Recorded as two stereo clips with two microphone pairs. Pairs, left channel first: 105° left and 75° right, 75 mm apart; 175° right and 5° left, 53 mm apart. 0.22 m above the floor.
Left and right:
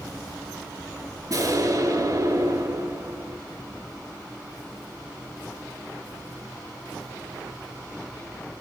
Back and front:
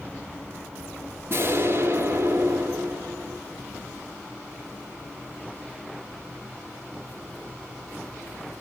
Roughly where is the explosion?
Ahead right.